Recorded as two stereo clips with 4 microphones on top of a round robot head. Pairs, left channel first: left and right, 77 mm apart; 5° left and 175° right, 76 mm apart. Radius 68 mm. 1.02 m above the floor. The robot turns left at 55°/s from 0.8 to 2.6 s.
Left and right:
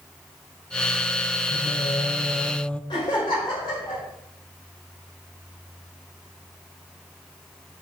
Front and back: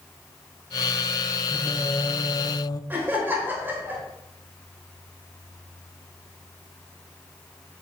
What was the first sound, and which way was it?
Singing, 75° left.